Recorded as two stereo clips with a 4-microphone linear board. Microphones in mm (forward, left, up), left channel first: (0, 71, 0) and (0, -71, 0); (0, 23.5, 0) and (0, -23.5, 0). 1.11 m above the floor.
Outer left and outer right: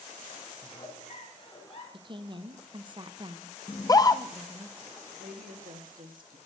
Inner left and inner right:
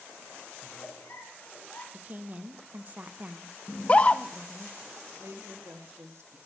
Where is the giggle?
45° left (ahead or behind), 3 m.